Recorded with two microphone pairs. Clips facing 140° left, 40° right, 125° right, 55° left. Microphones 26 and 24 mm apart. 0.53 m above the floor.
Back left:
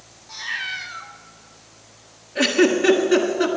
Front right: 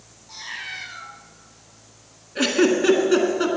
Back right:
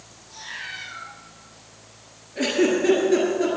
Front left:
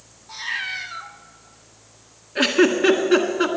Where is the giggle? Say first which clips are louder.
Back left 1 dB, front left 3 dB; 45° left, 1.5 m.